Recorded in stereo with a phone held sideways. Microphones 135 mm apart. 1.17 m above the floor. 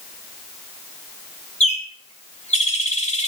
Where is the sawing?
No sawing in this recording.